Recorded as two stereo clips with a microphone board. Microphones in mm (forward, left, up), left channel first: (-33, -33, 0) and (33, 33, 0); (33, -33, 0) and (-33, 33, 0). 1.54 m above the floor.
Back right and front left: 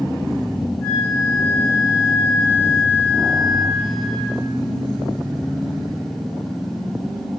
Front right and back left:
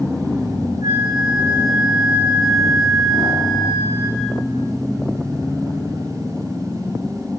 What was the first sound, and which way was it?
A flute, 175° left.